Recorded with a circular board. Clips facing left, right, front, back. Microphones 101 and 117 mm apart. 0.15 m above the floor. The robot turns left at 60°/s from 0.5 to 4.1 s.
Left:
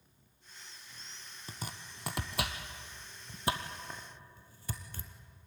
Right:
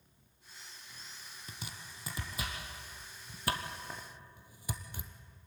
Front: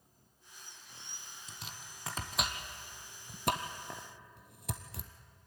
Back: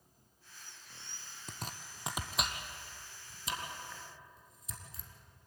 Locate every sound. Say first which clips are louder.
1.5 s chopping: left 4 dB, back 6 dB; 145° left, 1.8 m; by 5.1 s 15° right, 1.8 m